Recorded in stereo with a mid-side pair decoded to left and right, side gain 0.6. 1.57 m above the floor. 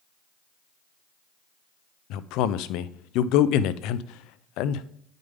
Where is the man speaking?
70° left, 0.7 m.